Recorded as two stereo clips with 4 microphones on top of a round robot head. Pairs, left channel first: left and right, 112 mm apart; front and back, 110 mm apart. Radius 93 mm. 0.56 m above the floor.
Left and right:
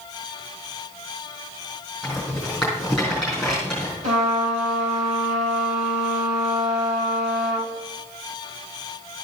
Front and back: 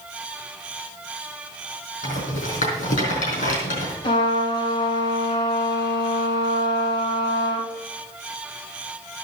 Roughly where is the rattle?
Ahead.